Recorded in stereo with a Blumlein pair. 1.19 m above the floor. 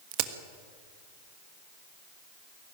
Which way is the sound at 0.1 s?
45° right.